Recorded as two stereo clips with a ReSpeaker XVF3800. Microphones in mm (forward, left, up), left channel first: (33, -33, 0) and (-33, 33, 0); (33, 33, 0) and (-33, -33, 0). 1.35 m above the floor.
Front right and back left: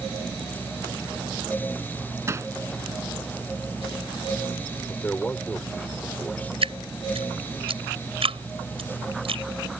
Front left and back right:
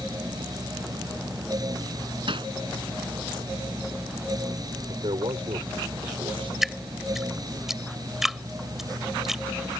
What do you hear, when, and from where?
2.3 s hammering: 165° right
4.9 s a man speaking: 115° right
6.6 s dripping: 140° left